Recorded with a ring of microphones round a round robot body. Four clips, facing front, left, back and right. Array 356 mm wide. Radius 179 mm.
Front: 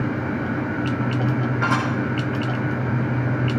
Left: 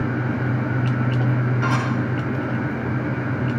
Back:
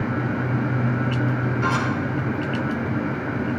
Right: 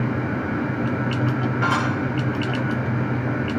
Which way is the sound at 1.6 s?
35° right.